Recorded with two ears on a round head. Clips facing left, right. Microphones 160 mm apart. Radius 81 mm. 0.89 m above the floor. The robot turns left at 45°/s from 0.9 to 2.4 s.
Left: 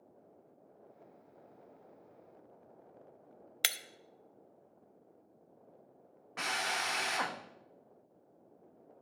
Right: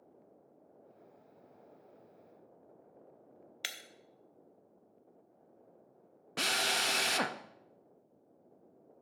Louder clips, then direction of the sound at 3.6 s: Left 7 dB; 65° left (ahead or behind).